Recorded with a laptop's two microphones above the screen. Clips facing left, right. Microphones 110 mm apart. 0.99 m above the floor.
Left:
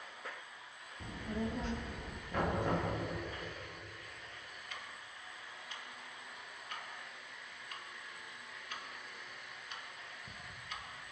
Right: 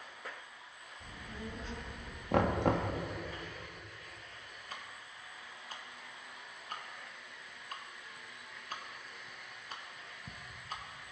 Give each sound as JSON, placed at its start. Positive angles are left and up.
{"t": 1.0, "sound": "a child speaking", "side_deg": 85, "distance_m": 1.2}
{"t": 2.3, "sound": "knocking", "side_deg": -75, "distance_m": 1.4}
{"t": 4.7, "sound": "ticking", "side_deg": -40, "distance_m": 1.3}